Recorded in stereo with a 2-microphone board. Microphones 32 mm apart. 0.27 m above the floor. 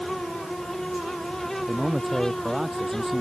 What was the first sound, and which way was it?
A man speaking, 10° right (ahead or behind).